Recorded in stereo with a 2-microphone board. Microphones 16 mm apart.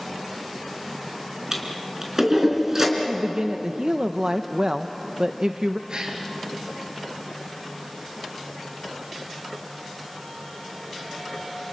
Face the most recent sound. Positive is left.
turn(degrees=-60)  # may be behind; listen again after turning